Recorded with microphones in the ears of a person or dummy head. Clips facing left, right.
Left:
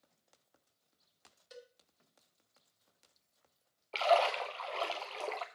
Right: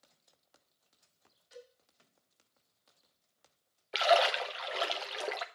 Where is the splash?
15° right (ahead or behind), 0.9 m.